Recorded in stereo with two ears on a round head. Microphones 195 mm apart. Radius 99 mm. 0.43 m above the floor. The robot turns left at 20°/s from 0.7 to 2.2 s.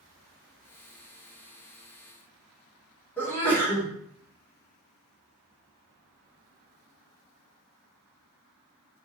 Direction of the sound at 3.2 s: 10° left (ahead or behind).